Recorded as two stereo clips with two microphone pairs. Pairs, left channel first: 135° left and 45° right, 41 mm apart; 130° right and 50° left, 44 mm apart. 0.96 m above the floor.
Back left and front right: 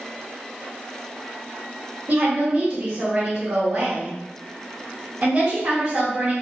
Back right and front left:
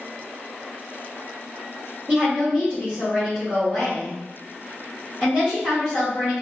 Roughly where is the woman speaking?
Ahead.